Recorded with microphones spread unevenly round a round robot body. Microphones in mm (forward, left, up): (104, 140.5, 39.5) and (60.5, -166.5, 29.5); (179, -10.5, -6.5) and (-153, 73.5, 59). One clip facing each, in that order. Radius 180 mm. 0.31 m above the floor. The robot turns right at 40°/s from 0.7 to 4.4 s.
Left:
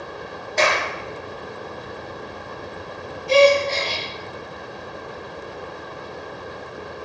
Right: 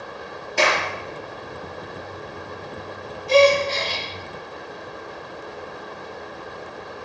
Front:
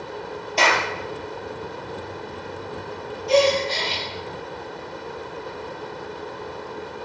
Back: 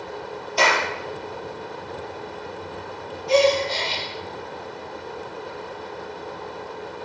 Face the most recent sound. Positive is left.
turn(degrees=75)